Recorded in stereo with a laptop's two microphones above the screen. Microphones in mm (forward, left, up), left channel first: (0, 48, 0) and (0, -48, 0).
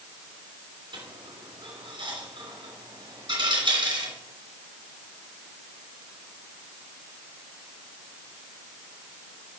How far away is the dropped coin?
About 3 m.